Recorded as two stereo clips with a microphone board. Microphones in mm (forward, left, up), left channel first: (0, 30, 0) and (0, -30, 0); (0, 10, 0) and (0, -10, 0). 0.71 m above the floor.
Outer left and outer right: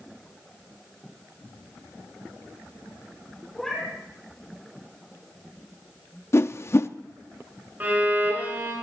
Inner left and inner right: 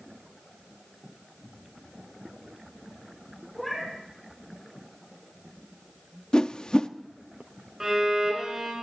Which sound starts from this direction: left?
A whoosh, at 6.3 s.